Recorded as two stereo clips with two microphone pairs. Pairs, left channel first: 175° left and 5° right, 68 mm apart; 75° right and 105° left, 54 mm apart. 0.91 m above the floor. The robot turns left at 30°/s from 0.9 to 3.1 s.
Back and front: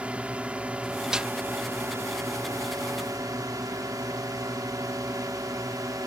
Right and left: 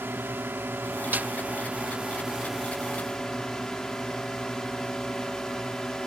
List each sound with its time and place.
0.0 s a drone: 65° left; by 6.1 s straight ahead
1.1 s a snare drum: 70° left; by 1.3 s 65° left